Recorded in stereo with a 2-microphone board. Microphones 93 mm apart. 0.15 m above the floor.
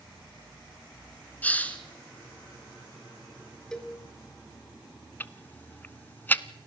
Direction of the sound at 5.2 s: 20° left (ahead or behind).